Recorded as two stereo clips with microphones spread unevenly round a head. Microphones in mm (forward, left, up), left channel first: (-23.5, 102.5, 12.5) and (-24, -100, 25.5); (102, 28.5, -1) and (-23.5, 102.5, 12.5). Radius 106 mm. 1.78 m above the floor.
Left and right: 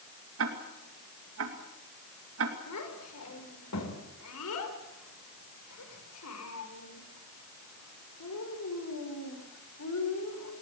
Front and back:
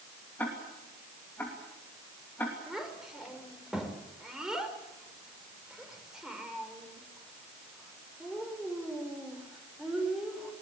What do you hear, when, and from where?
0.4 s ticking: 115° right, 2.5 m
2.7 s a child speaking: 65° left, 5 m